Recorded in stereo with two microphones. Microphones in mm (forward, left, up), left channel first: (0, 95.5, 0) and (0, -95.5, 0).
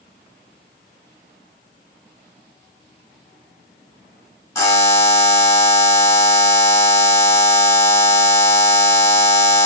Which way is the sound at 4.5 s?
15° left (ahead or behind).